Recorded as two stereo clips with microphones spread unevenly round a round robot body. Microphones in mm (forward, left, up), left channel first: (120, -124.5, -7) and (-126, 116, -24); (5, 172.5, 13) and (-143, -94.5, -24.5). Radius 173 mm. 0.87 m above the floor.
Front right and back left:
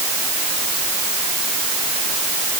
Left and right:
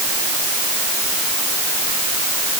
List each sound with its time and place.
Only background noise.